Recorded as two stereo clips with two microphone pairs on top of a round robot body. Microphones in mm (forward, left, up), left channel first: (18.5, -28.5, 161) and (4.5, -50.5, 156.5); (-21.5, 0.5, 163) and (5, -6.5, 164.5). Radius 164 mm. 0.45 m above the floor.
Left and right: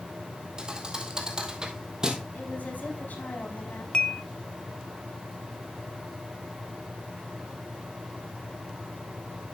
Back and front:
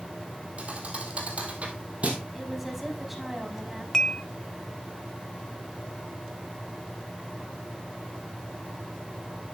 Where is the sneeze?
No sneeze in this recording.